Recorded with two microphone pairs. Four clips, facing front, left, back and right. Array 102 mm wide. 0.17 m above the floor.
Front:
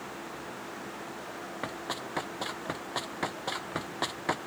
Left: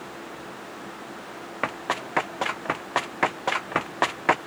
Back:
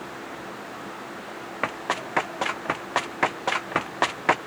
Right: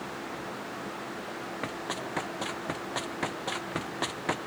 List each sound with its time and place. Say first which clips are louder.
1.6 s running footsteps: left 9 dB, back 10 dB; 135° left; by 4.4 s 130° left